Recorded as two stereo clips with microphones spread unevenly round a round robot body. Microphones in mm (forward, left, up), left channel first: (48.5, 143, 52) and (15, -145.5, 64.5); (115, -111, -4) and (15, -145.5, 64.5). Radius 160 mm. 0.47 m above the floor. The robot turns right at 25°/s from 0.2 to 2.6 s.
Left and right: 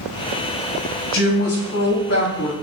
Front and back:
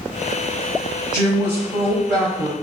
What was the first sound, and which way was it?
A woman speaking, 60° left.